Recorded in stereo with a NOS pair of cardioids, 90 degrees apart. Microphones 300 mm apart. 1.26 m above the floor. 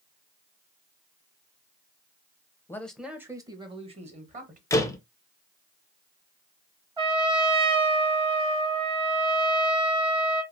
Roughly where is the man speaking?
Ahead.